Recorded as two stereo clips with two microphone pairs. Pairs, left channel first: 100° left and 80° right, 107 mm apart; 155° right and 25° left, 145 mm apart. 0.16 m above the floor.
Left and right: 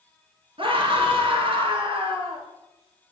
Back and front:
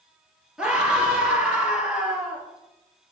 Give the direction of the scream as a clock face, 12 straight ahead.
2 o'clock.